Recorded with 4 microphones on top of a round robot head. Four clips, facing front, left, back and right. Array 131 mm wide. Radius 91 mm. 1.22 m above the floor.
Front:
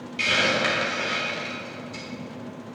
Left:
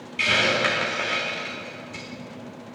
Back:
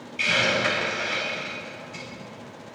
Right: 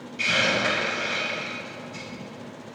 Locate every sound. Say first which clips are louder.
0.2 s a hiss: left 2 dB, even; 65° left, 1.6 m